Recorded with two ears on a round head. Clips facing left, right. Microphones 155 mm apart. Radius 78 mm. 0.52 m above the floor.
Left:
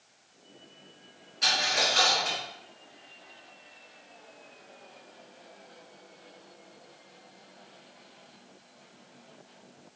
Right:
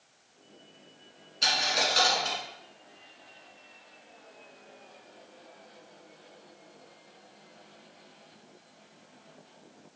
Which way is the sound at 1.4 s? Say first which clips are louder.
Even; 40° right (ahead or behind).